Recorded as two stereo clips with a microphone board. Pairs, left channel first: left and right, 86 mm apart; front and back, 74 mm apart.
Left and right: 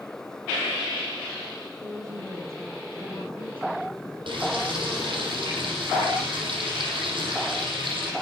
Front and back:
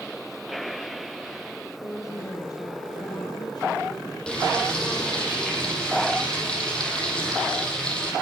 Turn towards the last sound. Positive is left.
turn(degrees=-80)